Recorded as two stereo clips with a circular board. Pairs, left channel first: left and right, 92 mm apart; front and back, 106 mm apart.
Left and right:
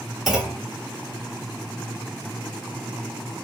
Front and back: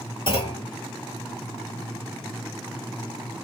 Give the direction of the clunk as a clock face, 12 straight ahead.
12 o'clock.